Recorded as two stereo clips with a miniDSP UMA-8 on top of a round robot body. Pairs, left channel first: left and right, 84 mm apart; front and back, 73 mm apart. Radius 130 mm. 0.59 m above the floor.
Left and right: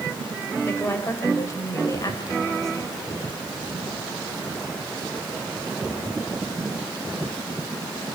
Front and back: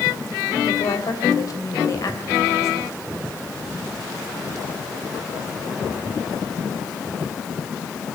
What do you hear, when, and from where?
0.6 s a woman speaking: 30° left, 3.5 m; by 3.0 s 50° left, 4 m